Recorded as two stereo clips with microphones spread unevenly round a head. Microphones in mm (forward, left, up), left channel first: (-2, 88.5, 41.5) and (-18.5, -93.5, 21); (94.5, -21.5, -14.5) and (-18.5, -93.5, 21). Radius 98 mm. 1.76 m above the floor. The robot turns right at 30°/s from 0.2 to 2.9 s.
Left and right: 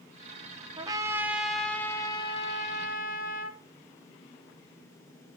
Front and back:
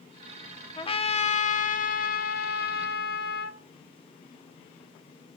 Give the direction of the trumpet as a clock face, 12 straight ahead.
1 o'clock.